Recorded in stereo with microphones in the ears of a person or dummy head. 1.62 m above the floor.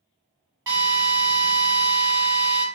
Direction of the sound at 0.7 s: 15° right (ahead or behind).